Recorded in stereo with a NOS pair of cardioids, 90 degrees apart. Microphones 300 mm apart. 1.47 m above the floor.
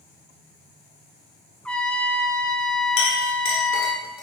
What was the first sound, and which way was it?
A trumpet, 5° left.